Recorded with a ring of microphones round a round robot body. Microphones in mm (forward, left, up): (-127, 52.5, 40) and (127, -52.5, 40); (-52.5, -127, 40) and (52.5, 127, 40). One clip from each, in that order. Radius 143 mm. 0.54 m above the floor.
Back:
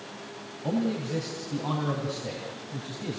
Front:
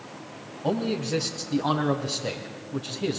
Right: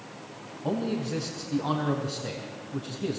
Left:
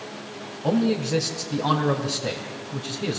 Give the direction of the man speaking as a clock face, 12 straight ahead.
12 o'clock.